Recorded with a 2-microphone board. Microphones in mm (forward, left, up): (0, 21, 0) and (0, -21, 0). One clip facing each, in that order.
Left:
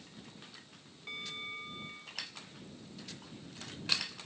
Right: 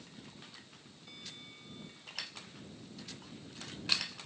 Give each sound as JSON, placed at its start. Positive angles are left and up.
{"t": 1.1, "sound": "a bell", "side_deg": 55}